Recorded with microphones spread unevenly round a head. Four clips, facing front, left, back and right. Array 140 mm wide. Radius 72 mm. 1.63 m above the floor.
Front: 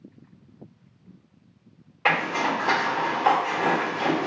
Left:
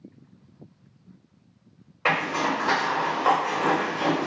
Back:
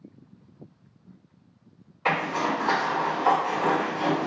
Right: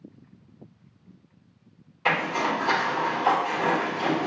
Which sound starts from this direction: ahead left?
A zipper, at 2.0 s.